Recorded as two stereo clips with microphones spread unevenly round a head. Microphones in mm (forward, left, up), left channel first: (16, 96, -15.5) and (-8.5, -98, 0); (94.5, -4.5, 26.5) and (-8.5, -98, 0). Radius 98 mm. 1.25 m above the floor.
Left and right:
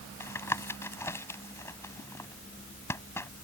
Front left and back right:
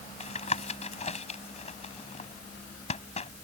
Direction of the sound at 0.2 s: 5° left.